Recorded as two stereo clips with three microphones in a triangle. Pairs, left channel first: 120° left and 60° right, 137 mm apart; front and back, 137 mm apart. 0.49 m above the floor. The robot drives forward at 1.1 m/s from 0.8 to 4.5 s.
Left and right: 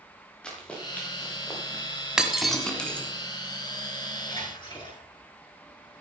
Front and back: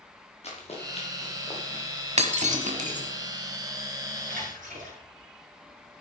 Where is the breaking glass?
145° right, 1.4 m; by 3.1 s 160° right, 2.5 m.